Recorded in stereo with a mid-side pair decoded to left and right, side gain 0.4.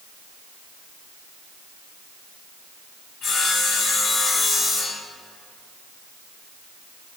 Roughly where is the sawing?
Left.